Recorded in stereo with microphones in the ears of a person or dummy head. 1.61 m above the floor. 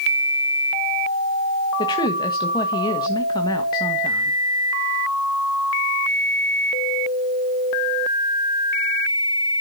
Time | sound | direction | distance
1.8 | a woman speaking | 20° left (ahead or behind) | 1.8 m